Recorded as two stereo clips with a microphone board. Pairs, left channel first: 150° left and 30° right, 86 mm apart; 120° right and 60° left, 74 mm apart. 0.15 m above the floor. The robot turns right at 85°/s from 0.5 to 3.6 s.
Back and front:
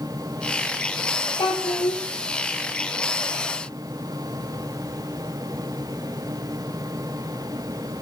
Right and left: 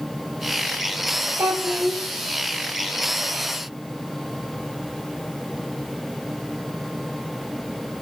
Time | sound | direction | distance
1.4 | a child speaking | 115° left | 3 m